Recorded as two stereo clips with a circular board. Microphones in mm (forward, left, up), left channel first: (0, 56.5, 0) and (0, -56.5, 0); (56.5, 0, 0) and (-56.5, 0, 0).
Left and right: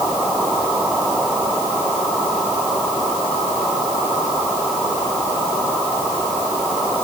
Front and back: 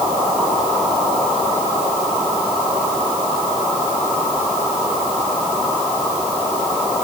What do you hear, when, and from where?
Only background noise.